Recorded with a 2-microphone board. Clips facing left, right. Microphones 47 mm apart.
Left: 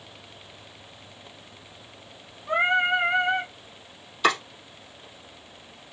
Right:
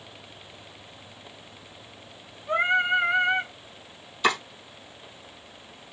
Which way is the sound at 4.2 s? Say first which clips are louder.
Left 1 dB; 5° left (ahead or behind).